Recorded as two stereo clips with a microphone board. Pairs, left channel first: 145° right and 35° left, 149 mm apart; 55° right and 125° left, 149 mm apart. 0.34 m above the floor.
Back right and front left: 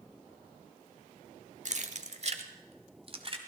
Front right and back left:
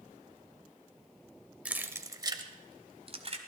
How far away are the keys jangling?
About 0.9 m.